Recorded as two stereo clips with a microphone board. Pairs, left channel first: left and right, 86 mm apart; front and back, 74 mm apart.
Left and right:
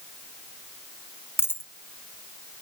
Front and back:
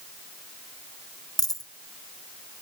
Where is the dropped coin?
30° left, 0.7 m.